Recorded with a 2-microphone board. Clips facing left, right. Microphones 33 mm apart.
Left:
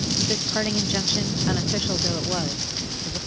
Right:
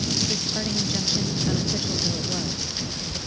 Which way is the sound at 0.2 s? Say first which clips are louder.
Left 2 dB; 35° left (ahead or behind).